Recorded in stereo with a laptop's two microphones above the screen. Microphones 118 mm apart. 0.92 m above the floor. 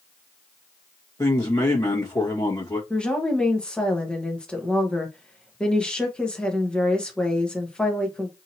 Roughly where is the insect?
No insect in this recording.